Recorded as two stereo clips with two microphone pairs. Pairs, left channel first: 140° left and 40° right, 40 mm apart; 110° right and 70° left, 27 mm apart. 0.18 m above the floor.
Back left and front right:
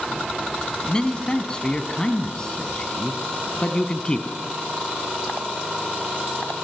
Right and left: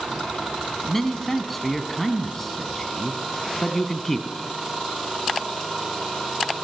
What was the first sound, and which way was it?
A man speaking, 175° right.